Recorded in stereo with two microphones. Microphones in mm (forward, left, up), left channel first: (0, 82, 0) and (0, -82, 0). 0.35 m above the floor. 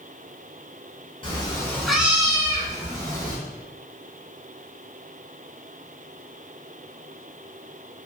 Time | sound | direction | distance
1.2 | a cat meowing | 35° left (ahead or behind) | 0.9 m